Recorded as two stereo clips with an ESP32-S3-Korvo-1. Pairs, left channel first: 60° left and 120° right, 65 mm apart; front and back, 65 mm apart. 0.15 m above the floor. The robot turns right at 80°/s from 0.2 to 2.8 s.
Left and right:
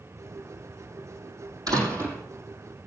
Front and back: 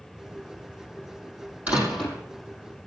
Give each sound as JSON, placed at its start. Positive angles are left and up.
{"t": 1.7, "sound": "a door slam", "azimuth_deg": -115, "distance_m": 5.0}